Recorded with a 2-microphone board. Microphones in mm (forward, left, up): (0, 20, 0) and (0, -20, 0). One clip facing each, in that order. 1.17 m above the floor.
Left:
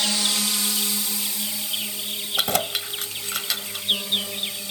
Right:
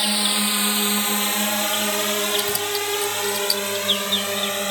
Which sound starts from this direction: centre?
A drone, at 0.0 s.